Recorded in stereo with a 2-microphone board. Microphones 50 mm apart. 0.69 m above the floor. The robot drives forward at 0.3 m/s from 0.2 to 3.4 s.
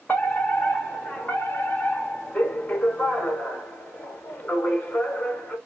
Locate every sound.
0.1 s a fire alarm: 30° left (ahead or behind), 2 m